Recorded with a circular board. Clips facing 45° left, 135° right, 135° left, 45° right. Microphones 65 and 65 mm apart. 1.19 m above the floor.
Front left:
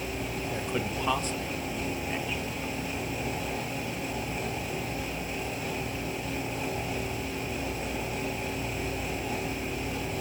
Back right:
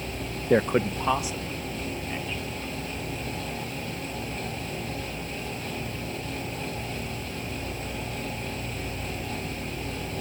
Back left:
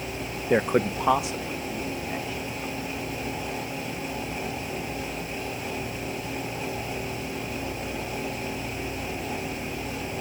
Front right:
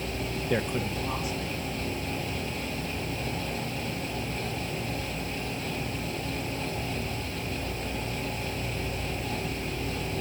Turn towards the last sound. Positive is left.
turn(degrees=130)